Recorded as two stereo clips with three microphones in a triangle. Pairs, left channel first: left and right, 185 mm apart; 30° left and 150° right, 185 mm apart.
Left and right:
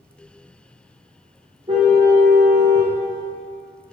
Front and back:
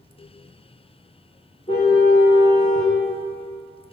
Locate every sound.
1.7 s a car horn: 30° right, 6.5 m